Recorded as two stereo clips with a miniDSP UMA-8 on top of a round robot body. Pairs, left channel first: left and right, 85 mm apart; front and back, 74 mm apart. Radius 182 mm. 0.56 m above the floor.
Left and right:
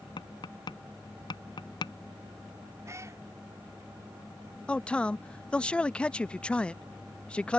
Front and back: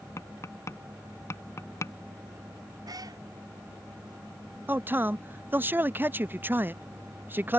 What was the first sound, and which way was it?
Tapping, 55° left.